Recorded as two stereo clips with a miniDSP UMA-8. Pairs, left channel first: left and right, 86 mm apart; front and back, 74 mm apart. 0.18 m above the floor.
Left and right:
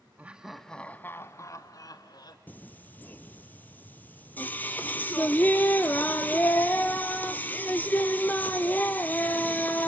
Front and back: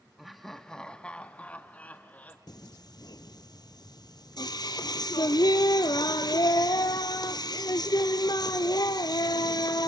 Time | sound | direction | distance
0.2 | laughter | 95° right | 1.0 m
2.5 | singing | 20° left | 1.1 m